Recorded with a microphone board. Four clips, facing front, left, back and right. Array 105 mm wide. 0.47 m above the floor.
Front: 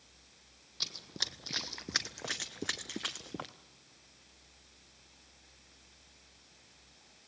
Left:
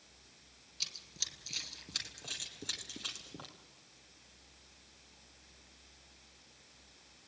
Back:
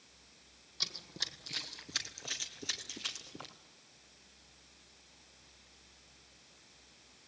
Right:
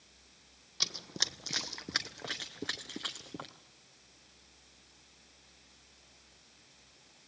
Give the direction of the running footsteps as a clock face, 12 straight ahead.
3 o'clock.